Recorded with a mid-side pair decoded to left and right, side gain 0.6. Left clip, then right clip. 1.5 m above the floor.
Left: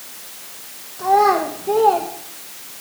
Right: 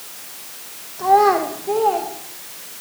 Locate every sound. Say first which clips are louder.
1.0 s a child speaking: right 1 dB; 10° right, 1.3 m; by 2.1 s 25° left, 1.7 m